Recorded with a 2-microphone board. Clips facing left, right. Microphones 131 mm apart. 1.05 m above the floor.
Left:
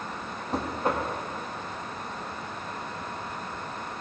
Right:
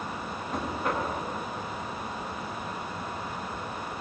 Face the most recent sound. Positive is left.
turn(degrees=35)  # may be behind; listen again after turning